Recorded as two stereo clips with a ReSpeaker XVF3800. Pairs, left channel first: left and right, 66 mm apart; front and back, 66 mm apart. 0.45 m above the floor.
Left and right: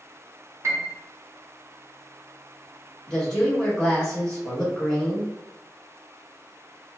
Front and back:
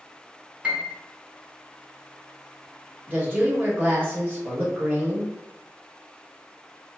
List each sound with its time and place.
0.6 s a piano: 115° right, 0.7 m
3.1 s a woman speaking: 160° left, 1.4 m